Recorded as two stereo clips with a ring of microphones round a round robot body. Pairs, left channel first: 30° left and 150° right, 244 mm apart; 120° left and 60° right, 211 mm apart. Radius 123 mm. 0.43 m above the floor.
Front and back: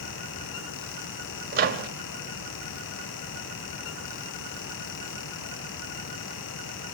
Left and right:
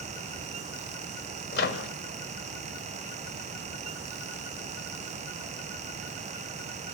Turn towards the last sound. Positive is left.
turn(degrees=165)